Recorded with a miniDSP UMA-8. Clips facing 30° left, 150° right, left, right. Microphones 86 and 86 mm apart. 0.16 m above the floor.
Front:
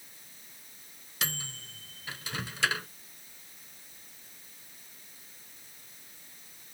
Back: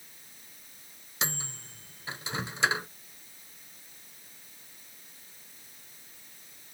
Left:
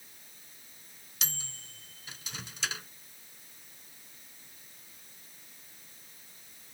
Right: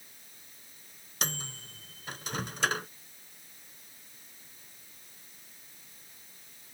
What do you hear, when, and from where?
1.2 s a microwave: 90° right